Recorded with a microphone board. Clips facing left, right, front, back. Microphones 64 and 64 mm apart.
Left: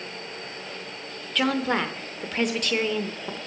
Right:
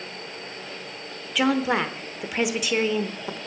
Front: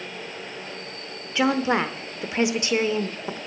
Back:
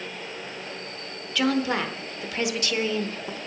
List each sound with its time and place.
1.4 s a woman speaking: 20° right, 0.9 m